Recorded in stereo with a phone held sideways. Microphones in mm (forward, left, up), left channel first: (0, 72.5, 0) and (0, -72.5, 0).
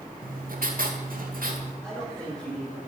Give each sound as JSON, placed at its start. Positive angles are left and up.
{"t": 0.2, "sound": "writing", "side_deg": -75, "distance_m": 1.9}
{"t": 1.8, "sound": "a man speaking", "side_deg": 5, "distance_m": 9.0}